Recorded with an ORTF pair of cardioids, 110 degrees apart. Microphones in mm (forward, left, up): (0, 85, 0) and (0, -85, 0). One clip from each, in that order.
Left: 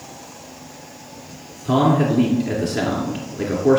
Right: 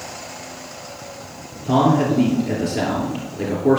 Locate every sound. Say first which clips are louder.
1.6 s a man speaking: right 1 dB; 15° left, 2.5 m